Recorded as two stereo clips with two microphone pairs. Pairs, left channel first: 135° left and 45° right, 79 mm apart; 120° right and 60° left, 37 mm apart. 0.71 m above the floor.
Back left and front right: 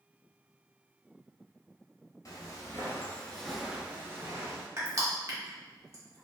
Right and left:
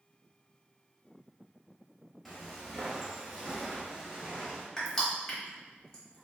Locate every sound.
2.2 s footsteps: 150° left, 1.0 m; by 4.7 s 10° right, 1.1 m
4.8 s crushing: 55° right, 1.0 m